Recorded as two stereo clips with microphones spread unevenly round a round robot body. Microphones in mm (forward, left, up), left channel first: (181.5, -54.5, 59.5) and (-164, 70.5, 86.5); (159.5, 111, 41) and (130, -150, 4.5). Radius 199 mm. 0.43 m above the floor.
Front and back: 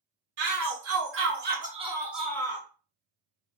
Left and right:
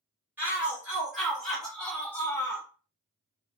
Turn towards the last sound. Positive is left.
turn(degrees=0)